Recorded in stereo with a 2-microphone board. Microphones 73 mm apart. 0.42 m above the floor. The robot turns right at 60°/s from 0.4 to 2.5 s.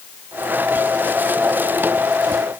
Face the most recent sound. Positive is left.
No sound to turn to.